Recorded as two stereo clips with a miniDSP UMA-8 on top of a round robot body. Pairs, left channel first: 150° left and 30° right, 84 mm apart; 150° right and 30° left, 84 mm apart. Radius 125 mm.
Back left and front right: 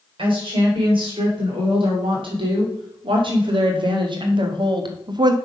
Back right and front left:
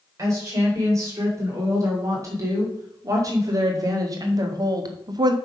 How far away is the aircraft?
No aircraft in this recording.